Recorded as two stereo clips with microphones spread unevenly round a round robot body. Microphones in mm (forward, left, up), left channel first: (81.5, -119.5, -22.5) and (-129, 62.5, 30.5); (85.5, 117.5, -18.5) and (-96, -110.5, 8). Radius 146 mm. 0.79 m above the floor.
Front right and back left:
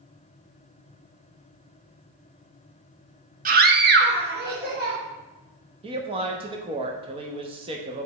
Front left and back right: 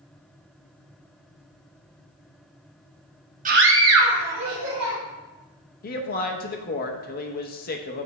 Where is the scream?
170° right, 0.7 m; by 5.0 s 160° right, 2.5 m.